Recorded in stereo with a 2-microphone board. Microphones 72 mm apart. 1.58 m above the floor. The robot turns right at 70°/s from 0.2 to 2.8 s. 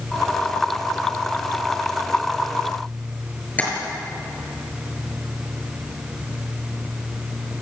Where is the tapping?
20° left (ahead or behind), 6.5 m.